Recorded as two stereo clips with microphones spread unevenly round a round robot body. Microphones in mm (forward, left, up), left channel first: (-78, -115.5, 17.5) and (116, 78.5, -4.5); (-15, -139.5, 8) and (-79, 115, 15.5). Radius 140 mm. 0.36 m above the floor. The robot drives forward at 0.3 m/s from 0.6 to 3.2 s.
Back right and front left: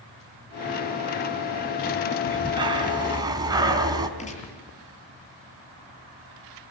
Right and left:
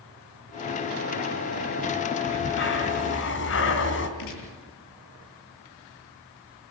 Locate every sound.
2.2 s breathing: 25° right, 3 m; by 4.1 s 30° right, 3 m
4.2 s a gunshot: 70° right, 7 m